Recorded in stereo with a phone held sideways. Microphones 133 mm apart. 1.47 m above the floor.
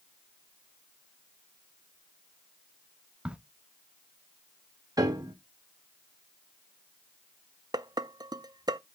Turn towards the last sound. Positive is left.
turn(degrees=-30)  # may be behind; listen again after turning